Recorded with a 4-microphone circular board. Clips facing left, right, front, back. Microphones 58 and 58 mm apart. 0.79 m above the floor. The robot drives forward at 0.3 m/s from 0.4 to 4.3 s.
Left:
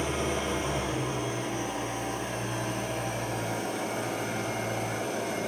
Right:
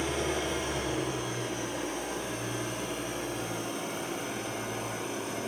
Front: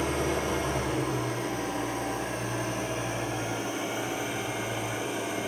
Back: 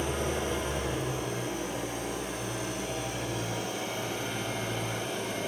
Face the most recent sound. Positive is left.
turn(degrees=75)